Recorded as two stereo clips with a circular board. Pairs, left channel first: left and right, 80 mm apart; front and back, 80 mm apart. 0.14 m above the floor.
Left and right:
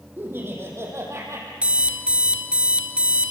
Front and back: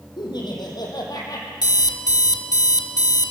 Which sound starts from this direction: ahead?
An alarm clock, at 1.6 s.